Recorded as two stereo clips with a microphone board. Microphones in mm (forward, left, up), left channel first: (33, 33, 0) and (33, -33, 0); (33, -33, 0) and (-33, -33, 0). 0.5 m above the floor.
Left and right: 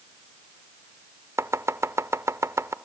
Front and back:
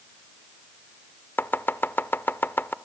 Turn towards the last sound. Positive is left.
turn(degrees=-55)